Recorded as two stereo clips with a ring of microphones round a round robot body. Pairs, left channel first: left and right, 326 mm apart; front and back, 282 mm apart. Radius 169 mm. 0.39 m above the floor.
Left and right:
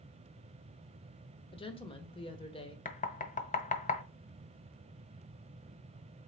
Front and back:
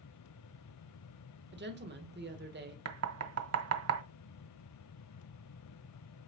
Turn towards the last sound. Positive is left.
turn(degrees=155)